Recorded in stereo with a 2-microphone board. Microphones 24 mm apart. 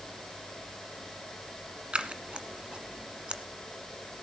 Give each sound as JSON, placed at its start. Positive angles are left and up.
{"t": 1.9, "sound": "scissors", "side_deg": -45, "distance_m": 1.5}